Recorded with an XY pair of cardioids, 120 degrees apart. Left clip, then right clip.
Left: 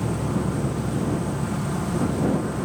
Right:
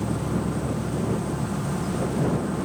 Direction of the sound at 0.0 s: 5° left.